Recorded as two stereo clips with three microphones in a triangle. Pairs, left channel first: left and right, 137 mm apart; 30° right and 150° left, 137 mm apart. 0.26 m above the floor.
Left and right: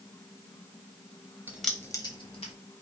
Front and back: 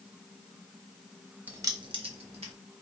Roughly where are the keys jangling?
Behind right.